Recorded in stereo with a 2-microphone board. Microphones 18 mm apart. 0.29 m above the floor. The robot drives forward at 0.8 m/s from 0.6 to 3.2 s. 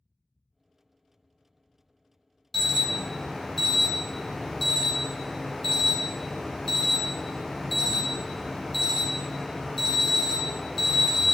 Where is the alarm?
15° left (ahead or behind), 0.8 m; by 11.3 s 10° left (ahead or behind), 1.3 m.